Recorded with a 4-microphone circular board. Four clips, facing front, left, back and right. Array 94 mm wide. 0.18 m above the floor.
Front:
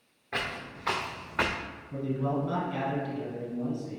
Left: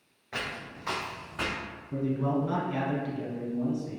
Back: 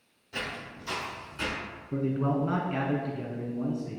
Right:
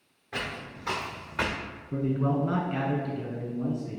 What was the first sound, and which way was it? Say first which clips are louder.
Footsteps: right 1 dB, front 2 dB; 10° left.